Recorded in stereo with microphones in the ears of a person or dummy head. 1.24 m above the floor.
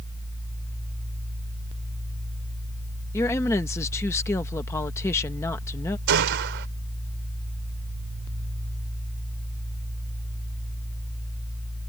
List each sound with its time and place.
3.1 s a woman speaking: 15° left (ahead or behind)
6.1 s a gunshot: 55° right (ahead or behind)